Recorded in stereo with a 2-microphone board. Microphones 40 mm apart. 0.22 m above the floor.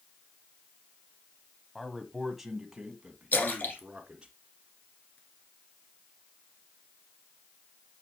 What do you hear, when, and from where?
1.8 s a man speaking: centre (ahead or behind), 1.0 m; by 4.3 s 25° right (ahead or behind), 2.0 m
3.3 s a splash: 45° left (ahead or behind), 1.8 m